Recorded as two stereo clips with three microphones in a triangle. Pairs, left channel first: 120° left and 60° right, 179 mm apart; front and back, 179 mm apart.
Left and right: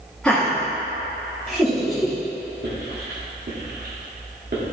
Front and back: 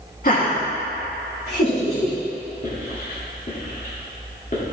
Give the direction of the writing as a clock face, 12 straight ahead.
1 o'clock.